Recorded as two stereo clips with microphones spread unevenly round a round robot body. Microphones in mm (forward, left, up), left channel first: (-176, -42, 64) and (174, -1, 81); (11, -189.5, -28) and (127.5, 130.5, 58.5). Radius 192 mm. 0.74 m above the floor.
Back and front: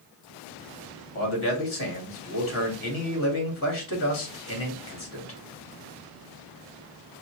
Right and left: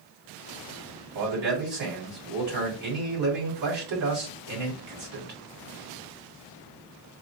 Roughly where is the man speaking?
Behind left.